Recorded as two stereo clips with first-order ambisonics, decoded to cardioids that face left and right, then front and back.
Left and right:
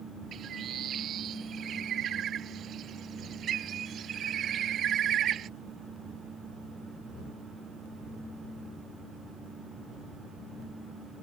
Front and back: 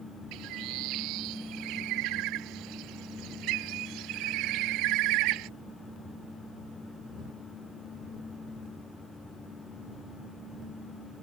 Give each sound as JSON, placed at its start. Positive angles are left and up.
{"t": 0.3, "sound": "a bird", "azimuth_deg": -150}